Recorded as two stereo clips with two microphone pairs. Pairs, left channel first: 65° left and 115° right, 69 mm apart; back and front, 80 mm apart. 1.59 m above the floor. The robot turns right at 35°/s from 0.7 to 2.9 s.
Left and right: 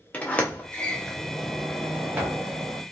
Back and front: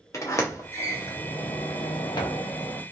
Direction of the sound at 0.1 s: 130° left.